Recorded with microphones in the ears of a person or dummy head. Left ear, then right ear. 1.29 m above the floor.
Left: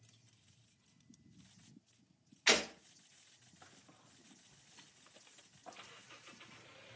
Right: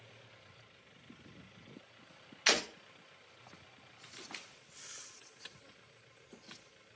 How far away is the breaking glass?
About 0.8 m.